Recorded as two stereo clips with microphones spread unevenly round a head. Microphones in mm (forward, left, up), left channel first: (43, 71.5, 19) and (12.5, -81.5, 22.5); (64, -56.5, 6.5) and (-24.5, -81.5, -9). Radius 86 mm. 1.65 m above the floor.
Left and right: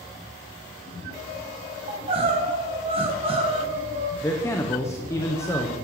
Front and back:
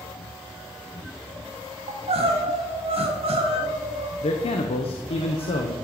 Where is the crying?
160° right, 2.0 m.